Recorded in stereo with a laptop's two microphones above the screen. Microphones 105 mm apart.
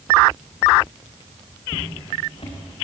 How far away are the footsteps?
About 6 m.